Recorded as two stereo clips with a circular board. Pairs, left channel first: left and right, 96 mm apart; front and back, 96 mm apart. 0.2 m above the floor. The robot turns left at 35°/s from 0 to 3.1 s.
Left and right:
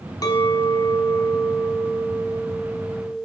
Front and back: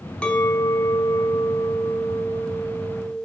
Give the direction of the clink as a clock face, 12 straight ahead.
10 o'clock.